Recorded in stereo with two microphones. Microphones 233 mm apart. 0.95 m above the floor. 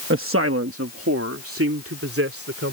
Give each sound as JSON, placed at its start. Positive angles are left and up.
{"t": 0.1, "sound": "a man speaking", "side_deg": -60}